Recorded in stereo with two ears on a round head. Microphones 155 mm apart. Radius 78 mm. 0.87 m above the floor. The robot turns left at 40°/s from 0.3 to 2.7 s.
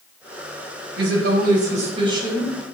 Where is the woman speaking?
105° right, 4 m; by 2.8 s 175° right, 4 m.